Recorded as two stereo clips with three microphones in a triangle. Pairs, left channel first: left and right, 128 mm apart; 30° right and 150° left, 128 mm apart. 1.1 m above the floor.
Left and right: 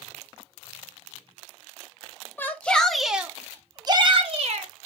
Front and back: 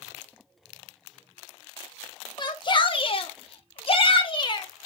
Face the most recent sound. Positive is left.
turn(degrees=-75)